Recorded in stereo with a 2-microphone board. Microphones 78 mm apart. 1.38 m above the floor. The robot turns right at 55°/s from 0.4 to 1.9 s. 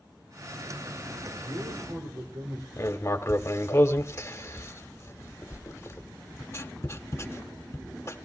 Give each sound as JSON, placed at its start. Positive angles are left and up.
{"t": 1.4, "sound": "a man speaking", "side_deg": -85, "distance_m": 3.5}
{"t": 2.8, "sound": "writing", "side_deg": 35, "distance_m": 1.4}